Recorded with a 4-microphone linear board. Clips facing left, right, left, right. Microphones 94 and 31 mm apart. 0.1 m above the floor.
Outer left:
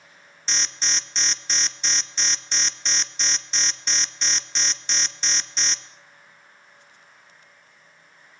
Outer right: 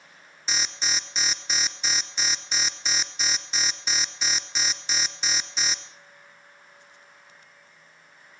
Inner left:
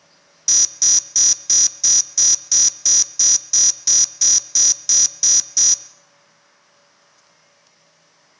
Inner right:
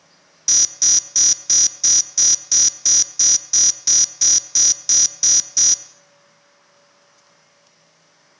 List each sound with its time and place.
0.5 s an alarm: 5° right (ahead or behind), 1.1 m